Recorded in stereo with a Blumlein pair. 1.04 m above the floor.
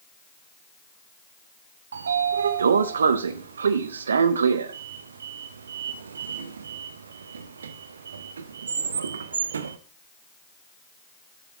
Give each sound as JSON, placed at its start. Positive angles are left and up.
{"t": 1.9, "sound": "a sliding door", "azimuth_deg": -70, "distance_m": 0.7}